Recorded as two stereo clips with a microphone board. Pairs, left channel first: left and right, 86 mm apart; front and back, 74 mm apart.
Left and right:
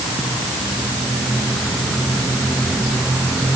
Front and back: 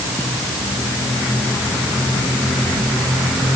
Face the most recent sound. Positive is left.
No sound to turn to.